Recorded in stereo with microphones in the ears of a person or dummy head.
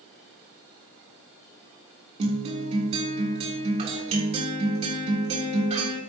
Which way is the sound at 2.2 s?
35° right (ahead or behind).